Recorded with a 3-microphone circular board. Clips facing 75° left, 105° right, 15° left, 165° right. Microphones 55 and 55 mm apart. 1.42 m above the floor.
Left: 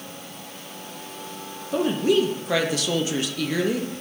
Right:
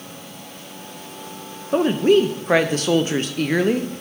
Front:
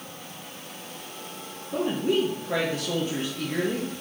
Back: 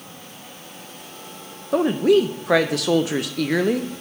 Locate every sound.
1.7 s a woman speaking: 155° right, 0.6 m